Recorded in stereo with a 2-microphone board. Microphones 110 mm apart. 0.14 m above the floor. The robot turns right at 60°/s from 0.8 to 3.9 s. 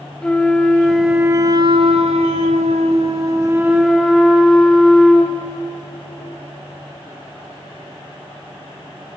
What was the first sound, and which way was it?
A flute, 175° left.